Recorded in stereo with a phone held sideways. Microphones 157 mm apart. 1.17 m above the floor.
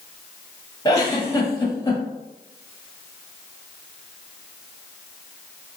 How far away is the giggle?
About 1.1 m.